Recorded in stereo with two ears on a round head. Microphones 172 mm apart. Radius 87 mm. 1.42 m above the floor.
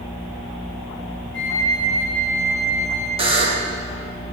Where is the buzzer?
30° right (ahead or behind), 0.9 m.